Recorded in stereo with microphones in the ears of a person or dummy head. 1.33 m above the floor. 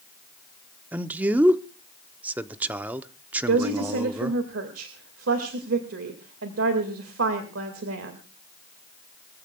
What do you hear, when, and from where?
0.9 s a man speaking: 10° right (ahead or behind), 0.6 m
3.5 s a woman speaking: 80° right, 2.0 m